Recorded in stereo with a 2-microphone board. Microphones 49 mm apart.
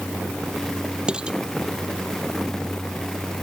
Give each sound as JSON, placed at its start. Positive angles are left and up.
{"t": 1.1, "sound": "dishes clattering", "side_deg": -15}